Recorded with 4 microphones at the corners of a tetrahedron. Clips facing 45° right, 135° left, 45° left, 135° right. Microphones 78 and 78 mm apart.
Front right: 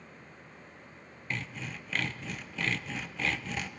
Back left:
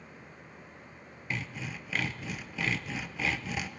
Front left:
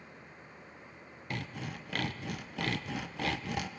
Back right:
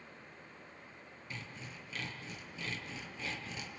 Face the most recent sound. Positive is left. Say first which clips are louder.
# back left 1 dB, front left 9 dB
turn(degrees=50)